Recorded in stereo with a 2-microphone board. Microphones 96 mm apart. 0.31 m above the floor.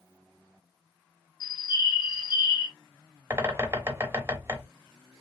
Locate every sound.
1.4 s a bird: 50° left (ahead or behind), 0.6 m
3.3 s a bird: 30° right (ahead or behind), 0.8 m